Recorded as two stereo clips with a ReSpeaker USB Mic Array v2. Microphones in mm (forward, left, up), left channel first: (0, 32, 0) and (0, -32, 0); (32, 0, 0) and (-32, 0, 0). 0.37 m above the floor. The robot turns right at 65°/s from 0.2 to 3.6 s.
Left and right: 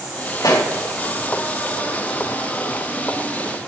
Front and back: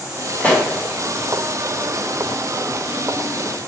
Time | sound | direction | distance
0.4 | a pop | 65° left | 3.5 m